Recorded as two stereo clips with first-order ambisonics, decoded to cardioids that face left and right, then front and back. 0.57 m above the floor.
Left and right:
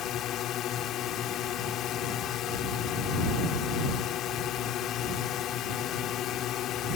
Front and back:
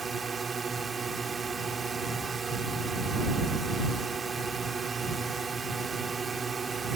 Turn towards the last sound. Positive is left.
turn(degrees=115)